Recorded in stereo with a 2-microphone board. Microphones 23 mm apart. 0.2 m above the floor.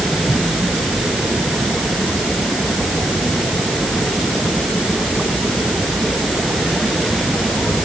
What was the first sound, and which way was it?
Only background noise.